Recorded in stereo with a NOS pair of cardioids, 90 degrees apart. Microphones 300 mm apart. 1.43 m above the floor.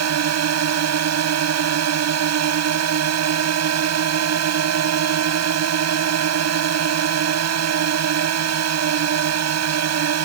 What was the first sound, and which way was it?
A drone, 60° right.